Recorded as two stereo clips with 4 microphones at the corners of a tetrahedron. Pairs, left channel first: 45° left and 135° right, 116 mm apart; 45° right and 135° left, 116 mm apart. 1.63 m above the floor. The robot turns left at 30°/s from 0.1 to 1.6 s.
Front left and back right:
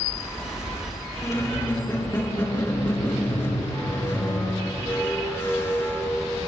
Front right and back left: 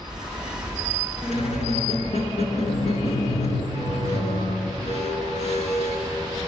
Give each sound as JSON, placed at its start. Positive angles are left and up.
{"t": 1.2, "sound": "a squeak", "azimuth_deg": -15, "distance_m": 5.0}